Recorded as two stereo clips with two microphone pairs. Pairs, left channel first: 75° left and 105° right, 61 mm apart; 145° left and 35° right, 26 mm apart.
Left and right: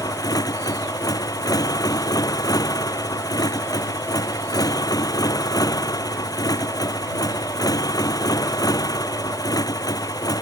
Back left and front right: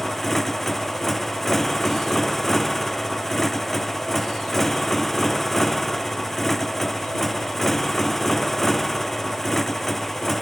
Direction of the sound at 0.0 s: 65° left.